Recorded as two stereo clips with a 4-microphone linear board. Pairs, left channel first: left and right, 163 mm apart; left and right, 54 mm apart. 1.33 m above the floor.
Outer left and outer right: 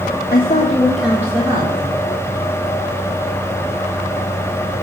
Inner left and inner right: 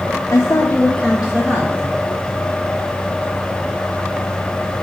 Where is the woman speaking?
70° left (ahead or behind), 0.6 m; by 2.0 s 30° right (ahead or behind), 1.7 m.